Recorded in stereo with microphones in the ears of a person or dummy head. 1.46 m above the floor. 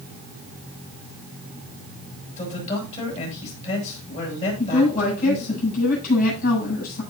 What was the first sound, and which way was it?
A man speaking, 35° left (ahead or behind).